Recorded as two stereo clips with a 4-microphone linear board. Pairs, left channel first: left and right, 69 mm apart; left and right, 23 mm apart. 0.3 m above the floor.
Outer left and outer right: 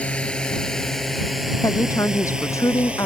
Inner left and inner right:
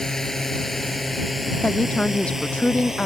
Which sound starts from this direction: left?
A woman speaking, at 1.6 s.